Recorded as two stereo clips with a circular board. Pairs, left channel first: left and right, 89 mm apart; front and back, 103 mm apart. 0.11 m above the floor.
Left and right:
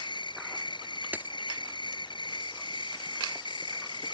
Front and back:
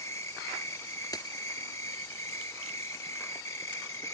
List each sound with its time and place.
0.0 s an insect: 60° left
1.1 s a dropped coin: 30° right